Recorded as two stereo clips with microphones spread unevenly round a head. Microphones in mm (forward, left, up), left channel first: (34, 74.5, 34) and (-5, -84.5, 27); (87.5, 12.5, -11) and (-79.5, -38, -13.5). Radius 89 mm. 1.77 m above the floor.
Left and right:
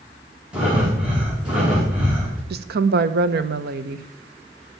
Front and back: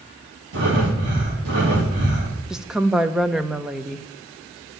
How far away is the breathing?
About 2.5 m.